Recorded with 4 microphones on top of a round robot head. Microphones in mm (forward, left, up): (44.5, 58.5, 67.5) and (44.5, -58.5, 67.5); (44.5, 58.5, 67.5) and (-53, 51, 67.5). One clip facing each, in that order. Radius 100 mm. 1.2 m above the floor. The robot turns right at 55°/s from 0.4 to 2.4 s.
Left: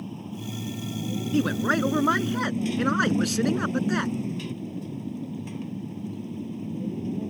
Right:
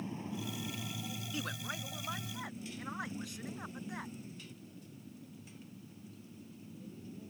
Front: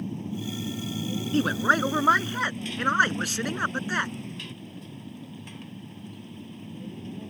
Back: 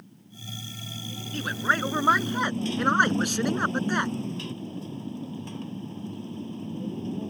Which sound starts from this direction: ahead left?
A man speaking, at 1.3 s.